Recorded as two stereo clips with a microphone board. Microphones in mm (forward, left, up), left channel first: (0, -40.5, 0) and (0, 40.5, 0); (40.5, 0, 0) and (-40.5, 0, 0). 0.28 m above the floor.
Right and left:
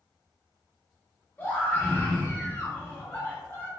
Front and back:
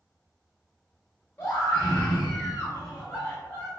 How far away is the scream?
About 1.0 m.